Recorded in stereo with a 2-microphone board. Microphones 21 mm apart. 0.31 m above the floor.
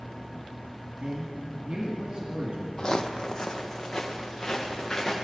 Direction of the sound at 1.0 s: 45° right (ahead or behind).